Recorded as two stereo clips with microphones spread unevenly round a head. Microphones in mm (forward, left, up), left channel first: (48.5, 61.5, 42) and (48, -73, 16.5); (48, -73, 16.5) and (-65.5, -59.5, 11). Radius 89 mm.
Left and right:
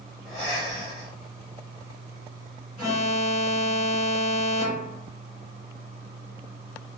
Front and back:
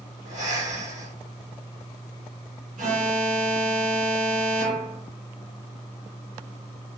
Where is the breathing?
170° right, 2 m.